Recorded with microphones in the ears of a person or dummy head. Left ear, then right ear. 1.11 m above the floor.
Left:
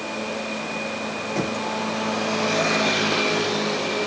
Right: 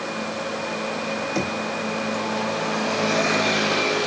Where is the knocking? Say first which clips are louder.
Left 2 dB; 40° right (ahead or behind), 4 m.